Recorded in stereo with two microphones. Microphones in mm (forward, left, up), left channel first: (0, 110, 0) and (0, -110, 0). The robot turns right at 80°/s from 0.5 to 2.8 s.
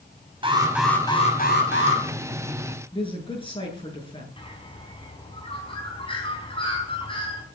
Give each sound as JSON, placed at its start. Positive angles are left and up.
{"t": 0.4, "sound": "an alarm", "azimuth_deg": -25, "distance_m": 4.5}
{"t": 2.9, "sound": "a man speaking", "side_deg": 25, "distance_m": 8.5}
{"t": 4.4, "sound": "a bird", "side_deg": 25, "distance_m": 4.5}